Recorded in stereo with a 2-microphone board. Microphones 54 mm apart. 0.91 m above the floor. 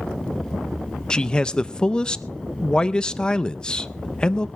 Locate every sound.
1.1 s a man speaking: 15° left (ahead or behind), 0.5 m